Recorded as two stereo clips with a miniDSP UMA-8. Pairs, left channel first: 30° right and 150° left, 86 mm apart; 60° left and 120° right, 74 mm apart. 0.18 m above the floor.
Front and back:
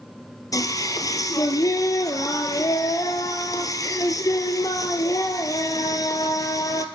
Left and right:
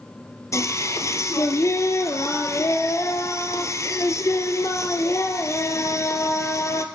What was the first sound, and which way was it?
Singing, 15° left.